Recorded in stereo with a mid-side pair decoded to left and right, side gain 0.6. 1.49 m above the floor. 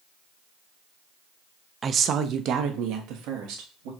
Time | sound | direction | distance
1.8 | a woman speaking | 30° right | 0.5 m